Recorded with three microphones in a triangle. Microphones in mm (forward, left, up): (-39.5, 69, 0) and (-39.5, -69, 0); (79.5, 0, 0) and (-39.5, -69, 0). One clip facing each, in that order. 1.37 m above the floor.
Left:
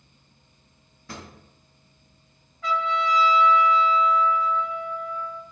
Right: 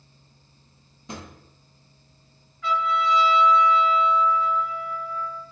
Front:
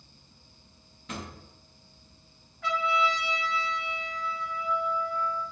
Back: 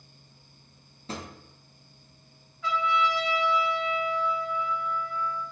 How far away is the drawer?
About 0.6 m.